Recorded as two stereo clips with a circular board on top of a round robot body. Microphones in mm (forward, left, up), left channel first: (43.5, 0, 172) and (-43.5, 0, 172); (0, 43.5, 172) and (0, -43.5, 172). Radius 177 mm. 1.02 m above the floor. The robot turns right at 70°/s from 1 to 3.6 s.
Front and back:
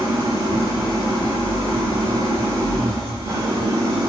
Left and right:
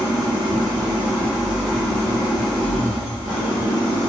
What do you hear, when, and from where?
0.0 s an engine running: 50° right, 0.8 m; by 4.1 s 130° left, 0.8 m